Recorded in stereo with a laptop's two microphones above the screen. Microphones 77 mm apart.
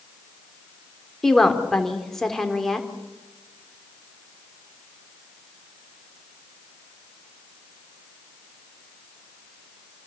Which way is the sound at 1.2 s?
5° left (ahead or behind).